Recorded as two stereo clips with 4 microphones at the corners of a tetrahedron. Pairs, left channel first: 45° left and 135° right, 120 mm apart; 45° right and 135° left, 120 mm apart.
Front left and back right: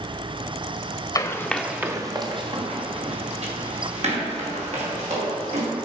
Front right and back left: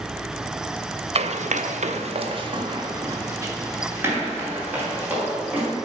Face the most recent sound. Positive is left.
turn(degrees=-150)